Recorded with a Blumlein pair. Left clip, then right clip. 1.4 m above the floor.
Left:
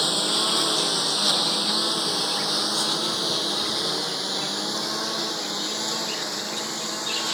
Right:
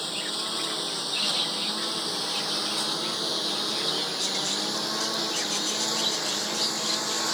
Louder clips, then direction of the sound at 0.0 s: Left 8 dB; 25° left.